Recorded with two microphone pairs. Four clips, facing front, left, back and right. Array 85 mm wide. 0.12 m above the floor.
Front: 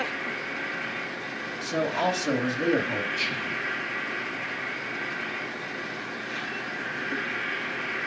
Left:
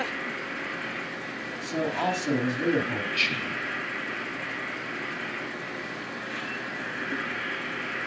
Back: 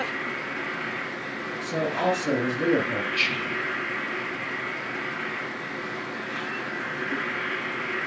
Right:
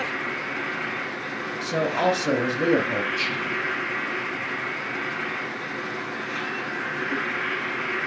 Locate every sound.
0.0 s an insect: 110° right, 5 m
1.6 s a man speaking: 75° right, 2 m
3.1 s whispering: 155° left, 3 m